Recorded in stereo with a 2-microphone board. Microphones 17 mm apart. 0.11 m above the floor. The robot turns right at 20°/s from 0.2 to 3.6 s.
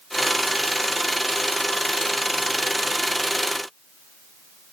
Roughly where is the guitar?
No guitar in this recording.